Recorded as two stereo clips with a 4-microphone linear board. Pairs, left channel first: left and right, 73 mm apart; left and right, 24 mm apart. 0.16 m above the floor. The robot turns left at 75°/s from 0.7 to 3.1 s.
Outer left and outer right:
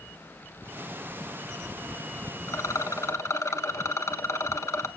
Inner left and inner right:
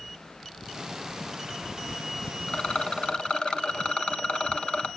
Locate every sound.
2.5 s a rattle: 115° left, 0.9 m; by 4.9 s 70° left, 0.9 m